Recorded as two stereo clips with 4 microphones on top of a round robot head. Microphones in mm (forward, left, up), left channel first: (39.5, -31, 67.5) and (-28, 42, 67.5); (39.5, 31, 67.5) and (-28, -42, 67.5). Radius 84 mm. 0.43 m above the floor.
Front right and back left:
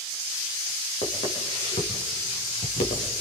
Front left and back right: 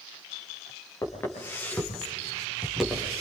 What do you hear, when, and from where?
1.0 s footsteps: 15° right, 6 m; by 3.2 s 50° right, 5.5 m